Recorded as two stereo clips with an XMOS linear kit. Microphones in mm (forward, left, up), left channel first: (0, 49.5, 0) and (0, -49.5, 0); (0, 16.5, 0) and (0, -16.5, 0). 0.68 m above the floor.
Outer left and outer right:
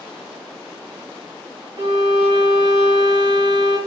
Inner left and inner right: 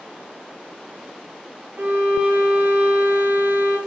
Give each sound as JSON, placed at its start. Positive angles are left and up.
{"t": 1.8, "sound": "a violin", "side_deg": -85, "distance_m": 9.5}